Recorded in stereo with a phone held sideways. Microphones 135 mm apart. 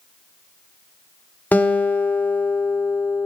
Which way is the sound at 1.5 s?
15° left (ahead or behind).